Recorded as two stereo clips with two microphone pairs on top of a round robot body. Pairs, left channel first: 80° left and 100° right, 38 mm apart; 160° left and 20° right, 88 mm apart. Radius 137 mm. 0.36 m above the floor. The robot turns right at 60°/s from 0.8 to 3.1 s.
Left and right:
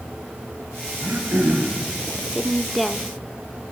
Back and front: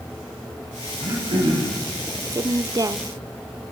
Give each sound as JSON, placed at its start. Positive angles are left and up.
{"t": 1.0, "sound": "throat clearing", "azimuth_deg": -75, "distance_m": 5.0}
{"t": 2.3, "sound": "a woman speaking", "azimuth_deg": -25, "distance_m": 1.1}